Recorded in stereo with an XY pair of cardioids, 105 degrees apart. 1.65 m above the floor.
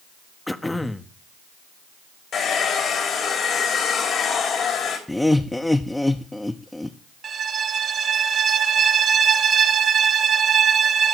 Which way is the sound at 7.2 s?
55° right.